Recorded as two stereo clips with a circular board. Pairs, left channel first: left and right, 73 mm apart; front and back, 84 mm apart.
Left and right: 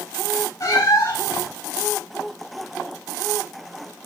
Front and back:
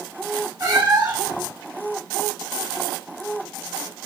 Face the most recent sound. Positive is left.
turn(degrees=140)